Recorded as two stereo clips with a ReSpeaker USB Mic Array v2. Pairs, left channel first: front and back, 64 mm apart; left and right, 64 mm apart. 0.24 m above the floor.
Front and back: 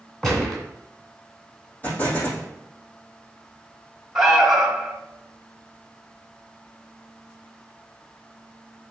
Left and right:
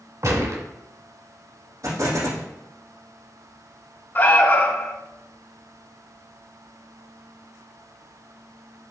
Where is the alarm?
95° left, 1.3 m.